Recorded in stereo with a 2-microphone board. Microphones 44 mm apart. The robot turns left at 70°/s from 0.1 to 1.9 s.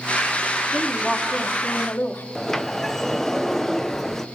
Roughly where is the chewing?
No chewing in this recording.